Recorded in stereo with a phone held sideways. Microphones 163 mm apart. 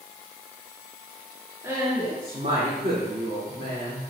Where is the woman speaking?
20° right (ahead or behind), 2.5 m; by 4.0 s 85° right, 3 m.